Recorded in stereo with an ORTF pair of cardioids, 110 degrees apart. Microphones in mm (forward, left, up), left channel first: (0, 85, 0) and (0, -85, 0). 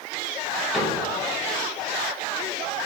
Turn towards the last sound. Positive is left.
turn(degrees=0)